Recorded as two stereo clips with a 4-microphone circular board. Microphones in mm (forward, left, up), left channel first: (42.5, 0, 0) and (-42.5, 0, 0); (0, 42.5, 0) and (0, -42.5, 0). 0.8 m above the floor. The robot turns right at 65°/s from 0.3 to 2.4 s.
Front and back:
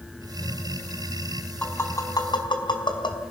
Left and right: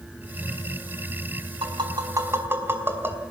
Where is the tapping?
75° right, 4.5 m; by 3.2 s 25° right, 4.5 m.